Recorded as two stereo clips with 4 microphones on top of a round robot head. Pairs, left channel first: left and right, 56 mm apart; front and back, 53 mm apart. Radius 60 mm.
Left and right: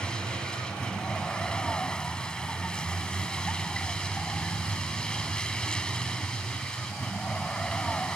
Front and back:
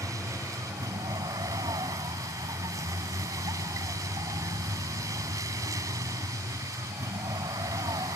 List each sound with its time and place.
0.0 s a vehicle: 165° left